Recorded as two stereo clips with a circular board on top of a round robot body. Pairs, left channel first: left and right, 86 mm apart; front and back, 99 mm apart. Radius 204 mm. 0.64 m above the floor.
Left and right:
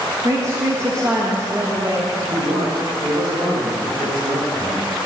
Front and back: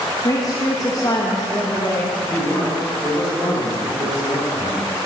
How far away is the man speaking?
About 3 m.